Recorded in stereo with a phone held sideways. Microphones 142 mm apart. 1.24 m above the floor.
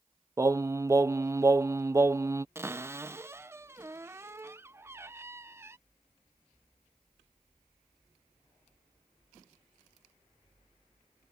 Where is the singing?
20° right (ahead or behind).